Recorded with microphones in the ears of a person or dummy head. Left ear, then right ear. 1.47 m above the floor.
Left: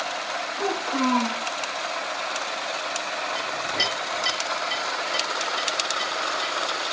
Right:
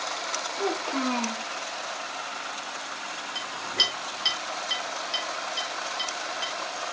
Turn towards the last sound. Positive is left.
turn(degrees=-25)  # may be behind; listen again after turning